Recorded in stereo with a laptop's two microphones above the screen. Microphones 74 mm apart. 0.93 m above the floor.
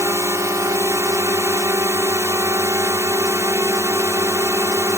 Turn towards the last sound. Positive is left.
turn(degrees=-40)  # may be behind; listen again after turning